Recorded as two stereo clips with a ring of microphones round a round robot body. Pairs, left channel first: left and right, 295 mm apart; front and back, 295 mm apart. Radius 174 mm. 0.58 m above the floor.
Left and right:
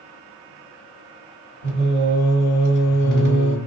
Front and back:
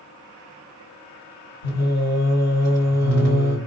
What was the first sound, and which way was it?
Singing, 45° right.